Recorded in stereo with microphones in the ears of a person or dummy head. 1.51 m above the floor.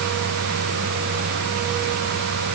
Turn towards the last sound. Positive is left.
No sound to turn to.